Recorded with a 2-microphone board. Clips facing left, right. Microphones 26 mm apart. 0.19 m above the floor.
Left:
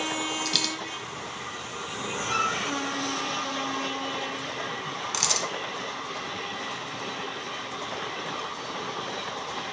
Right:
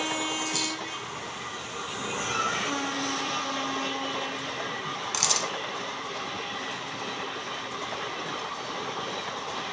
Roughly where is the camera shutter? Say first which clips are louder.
Even; centre.